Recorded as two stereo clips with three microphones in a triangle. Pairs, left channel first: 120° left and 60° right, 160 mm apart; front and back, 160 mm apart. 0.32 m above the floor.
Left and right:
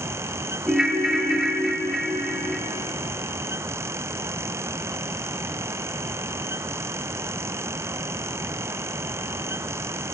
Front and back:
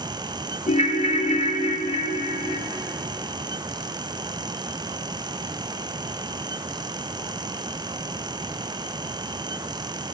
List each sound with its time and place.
0.7 s a ringtone: 25° left, 0.8 m